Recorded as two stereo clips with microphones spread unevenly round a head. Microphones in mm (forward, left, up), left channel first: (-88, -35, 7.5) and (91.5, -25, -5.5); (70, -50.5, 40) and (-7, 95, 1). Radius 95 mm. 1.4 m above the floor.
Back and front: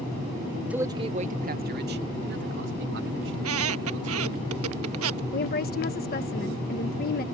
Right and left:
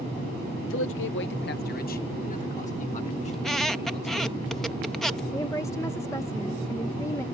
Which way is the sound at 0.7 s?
80° right.